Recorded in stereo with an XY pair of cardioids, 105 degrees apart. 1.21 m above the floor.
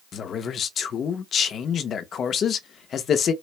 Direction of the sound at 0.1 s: 55° left.